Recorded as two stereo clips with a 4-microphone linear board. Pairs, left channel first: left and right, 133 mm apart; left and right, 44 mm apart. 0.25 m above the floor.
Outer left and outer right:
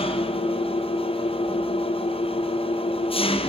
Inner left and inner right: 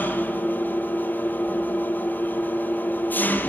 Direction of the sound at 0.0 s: 45° left (ahead or behind).